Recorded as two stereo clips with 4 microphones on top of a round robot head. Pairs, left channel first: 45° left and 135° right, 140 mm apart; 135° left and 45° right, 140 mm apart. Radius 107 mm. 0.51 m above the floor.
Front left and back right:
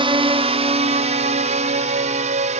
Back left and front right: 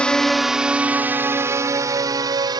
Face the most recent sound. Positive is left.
turn(degrees=-105)